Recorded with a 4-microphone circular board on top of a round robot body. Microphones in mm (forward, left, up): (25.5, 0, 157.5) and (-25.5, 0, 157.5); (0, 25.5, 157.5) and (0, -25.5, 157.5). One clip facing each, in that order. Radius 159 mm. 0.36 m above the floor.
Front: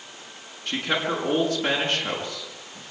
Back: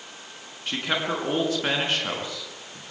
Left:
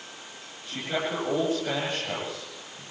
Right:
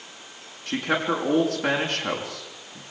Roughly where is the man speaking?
Right.